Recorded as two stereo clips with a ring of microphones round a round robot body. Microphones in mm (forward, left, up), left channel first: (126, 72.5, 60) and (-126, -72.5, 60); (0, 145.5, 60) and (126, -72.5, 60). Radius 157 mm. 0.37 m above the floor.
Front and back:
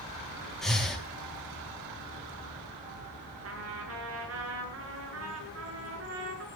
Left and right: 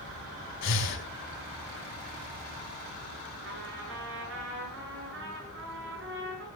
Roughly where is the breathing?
Behind left.